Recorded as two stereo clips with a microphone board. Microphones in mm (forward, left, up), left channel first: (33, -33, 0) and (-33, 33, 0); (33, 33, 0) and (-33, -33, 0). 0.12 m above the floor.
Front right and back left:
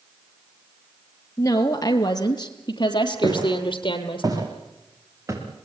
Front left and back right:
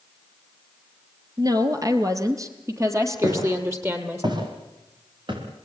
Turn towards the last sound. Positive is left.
turn(degrees=-165)